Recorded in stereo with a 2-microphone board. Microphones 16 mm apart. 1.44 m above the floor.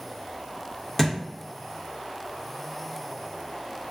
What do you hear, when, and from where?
1.0 s a thud: 25° left (ahead or behind), 0.9 m